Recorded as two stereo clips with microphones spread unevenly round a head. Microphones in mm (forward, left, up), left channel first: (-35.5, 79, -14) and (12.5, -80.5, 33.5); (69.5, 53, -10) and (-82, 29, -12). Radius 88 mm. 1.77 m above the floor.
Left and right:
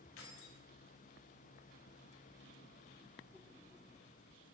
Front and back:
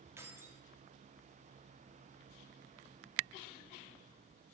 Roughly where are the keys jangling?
Behind left.